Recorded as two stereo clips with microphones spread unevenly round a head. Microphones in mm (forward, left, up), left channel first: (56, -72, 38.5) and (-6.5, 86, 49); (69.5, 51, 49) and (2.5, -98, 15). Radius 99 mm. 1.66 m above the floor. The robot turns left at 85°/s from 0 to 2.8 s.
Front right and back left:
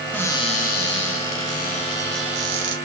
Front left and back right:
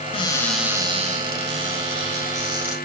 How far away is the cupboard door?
About 2.0 m.